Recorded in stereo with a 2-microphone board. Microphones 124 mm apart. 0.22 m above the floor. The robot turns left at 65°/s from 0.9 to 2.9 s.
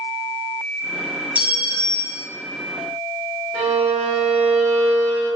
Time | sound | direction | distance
1.4 | a clink | 160° right | 0.8 m
3.5 | a violin | 5° left (ahead or behind) | 1.7 m